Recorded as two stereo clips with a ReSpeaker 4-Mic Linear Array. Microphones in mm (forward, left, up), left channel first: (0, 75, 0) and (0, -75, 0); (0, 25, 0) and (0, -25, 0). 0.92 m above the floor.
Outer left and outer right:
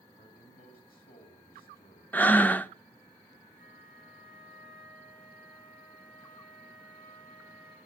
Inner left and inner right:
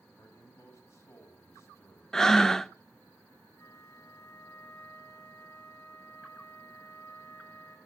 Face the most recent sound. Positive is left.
turn(degrees=85)